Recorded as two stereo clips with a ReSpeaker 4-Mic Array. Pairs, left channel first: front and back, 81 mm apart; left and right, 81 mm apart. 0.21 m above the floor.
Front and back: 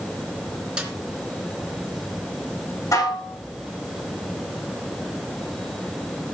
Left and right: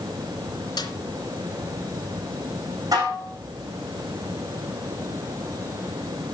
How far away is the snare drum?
About 3 m.